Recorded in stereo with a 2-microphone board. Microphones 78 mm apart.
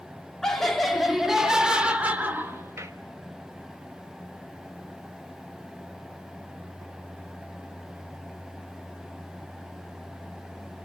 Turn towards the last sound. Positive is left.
turn(degrees=-40)  # may be behind; listen again after turning